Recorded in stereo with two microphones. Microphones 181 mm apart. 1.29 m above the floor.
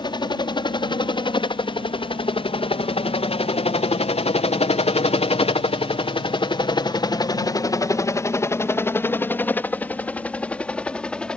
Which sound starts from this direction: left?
A helicopter, at 0.0 s.